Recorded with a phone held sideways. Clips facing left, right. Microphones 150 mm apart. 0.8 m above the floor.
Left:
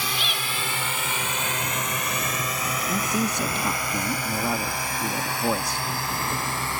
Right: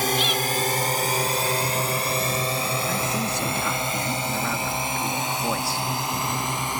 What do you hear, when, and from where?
0.0 s a drone: 45° right (ahead or behind); by 6.8 s 15° right (ahead or behind)
2.9 s a man speaking: 15° left (ahead or behind)